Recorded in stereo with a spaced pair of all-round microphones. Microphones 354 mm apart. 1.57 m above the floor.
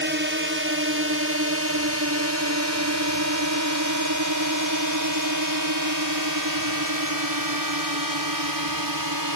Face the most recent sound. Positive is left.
turn(degrees=-85)